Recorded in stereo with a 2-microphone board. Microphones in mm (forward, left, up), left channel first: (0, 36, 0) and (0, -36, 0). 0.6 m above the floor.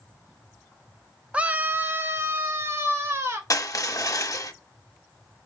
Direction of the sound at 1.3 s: 20° right (ahead or behind).